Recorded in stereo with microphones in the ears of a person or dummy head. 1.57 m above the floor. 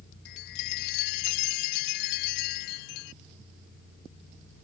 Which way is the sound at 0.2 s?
60° left (ahead or behind).